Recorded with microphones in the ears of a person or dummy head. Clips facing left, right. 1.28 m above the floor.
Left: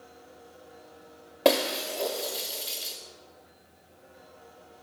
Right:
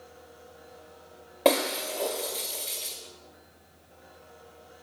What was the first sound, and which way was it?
Breaking glass, 10° left (ahead or behind).